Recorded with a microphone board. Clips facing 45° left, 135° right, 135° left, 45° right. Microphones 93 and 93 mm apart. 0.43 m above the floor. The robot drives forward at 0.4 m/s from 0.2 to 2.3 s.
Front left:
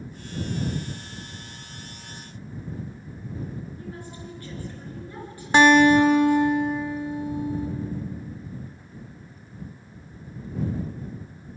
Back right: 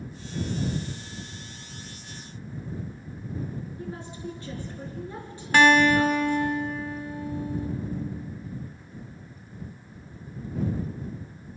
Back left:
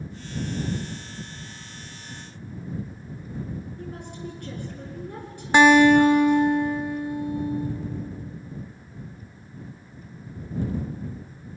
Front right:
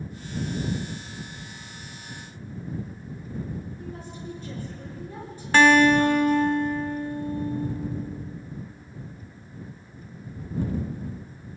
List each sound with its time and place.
3.8 s a woman speaking: 160° left, 6 m
5.5 s a guitar: 80° left, 1.4 m